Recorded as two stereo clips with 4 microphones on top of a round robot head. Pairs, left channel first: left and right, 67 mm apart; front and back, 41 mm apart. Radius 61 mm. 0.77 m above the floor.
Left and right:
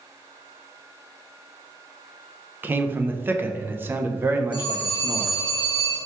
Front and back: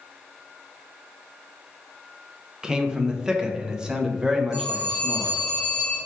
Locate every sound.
2.6 s a man speaking: 120° right, 0.6 m
4.5 s a phone ringing: 100° right, 1.2 m